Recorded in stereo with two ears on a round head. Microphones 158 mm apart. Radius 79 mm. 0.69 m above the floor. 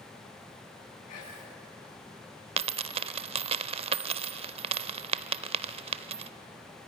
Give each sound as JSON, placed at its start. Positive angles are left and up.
{"t": 1.1, "sound": "whispering", "side_deg": 50, "distance_m": 6.0}
{"t": 2.6, "sound": "a dropped coin", "side_deg": -30, "distance_m": 0.5}